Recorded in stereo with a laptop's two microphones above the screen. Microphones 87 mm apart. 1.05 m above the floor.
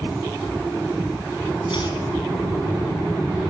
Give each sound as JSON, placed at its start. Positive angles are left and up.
{"t": 1.7, "sound": "chopping", "side_deg": 65, "distance_m": 3.0}